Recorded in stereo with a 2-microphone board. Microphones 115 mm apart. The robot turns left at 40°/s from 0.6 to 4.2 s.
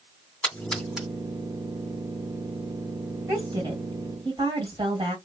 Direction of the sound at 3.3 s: 50° right.